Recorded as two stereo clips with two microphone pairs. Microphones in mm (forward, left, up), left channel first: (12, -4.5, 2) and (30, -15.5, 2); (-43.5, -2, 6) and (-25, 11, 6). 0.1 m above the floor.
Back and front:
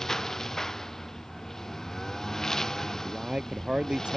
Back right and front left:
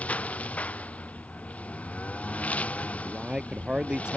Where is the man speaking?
Straight ahead.